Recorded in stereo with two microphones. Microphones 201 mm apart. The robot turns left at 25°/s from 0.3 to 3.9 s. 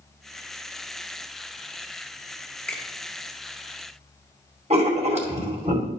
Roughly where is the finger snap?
Centre.